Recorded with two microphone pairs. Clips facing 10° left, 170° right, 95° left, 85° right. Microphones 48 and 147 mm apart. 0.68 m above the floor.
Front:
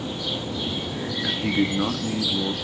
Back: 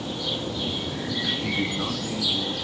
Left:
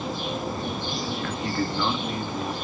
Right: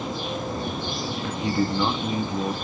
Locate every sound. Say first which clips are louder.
1.2 s a man speaking: front 5 dB, right 6 dB; 25° right, 0.7 m